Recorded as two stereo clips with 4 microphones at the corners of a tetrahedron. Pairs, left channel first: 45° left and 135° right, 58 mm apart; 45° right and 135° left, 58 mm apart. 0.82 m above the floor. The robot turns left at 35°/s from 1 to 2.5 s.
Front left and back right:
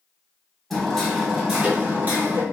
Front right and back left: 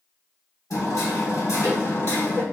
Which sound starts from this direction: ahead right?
Hammering, at 0.7 s.